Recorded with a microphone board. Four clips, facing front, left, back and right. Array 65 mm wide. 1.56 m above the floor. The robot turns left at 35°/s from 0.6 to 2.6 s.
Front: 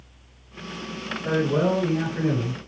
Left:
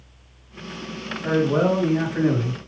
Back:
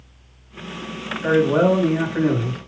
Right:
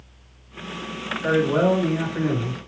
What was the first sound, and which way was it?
A man speaking, 150° right.